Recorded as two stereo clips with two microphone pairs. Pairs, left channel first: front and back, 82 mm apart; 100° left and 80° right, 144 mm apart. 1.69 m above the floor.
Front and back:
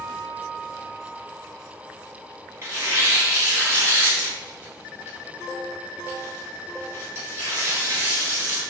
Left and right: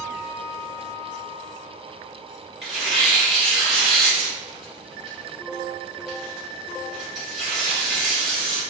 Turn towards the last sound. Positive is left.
turn(degrees=-165)